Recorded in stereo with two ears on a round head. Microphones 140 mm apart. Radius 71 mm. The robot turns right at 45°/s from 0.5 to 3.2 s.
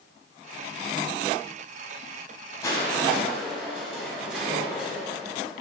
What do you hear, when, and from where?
2.6 s crushing: 20° left (ahead or behind), 5 m; by 5.6 s 5° right (ahead or behind), 5 m